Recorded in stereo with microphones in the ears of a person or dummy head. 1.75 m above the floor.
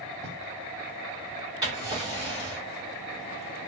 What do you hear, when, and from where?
0.2 s writing: 35° right (ahead or behind), 1.7 m
1.6 s a drawer: 20° right (ahead or behind), 1.1 m